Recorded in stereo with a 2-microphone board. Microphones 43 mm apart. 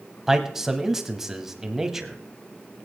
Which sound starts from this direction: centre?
A man speaking, at 0.3 s.